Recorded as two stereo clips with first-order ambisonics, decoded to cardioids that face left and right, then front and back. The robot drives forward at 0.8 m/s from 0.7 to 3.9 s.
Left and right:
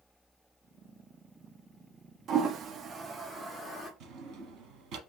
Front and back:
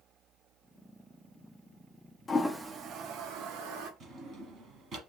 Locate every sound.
2.3 s a toilet flushing: 65° right, 0.5 m; by 3.9 s 165° right, 1.3 m
4.0 s a drawer: 125° right, 1.2 m